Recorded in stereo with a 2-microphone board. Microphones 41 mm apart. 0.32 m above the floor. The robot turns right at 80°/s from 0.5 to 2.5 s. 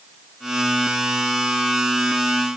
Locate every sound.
Only background noise.